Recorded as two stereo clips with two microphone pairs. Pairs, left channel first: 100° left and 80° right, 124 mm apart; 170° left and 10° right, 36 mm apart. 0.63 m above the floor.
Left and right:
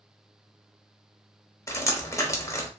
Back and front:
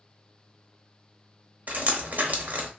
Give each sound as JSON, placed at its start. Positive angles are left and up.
{"t": 1.7, "sound": "dripping", "azimuth_deg": 35, "distance_m": 0.7}